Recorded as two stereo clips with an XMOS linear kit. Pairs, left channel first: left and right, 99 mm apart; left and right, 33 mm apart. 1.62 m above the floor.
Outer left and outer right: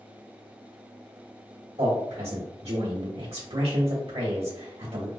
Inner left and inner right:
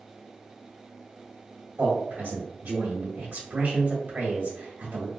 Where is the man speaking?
85° right, 1.5 m.